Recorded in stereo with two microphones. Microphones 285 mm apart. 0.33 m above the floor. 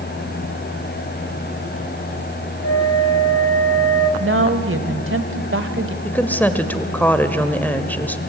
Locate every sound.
2.6 s a flute: 60° left (ahead or behind), 1.1 m
4.2 s a woman speaking: 50° right (ahead or behind), 1.5 m
6.0 s a woman speaking: 5° left (ahead or behind), 1.2 m